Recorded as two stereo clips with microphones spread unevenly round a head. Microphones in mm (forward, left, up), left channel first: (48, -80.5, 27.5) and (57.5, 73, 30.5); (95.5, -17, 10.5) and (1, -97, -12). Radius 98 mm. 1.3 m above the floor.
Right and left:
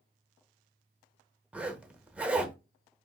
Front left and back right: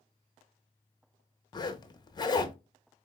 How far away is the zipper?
About 0.8 m.